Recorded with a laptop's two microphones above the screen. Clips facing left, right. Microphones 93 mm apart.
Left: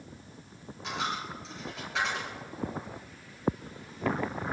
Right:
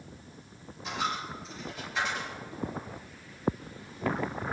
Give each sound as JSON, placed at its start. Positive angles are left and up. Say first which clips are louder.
{"t": 0.8, "sound": "a dropped coin", "louder": "right 1 dB", "side_deg": 70, "distance_m": 5.0}